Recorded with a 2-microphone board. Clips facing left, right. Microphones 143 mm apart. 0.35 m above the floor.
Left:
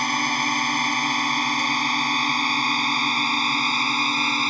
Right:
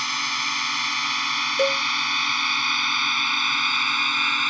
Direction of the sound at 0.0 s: 50° left (ahead or behind).